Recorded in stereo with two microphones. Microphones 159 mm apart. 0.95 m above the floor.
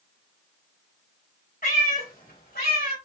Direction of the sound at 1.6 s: 65° left (ahead or behind).